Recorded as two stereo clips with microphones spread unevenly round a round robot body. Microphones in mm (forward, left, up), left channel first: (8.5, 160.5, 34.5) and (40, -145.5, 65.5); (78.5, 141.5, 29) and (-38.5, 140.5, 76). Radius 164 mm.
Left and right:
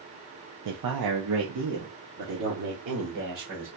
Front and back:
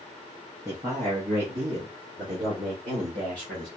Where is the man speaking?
90° right, 0.8 m; by 3.7 s 125° right, 3 m.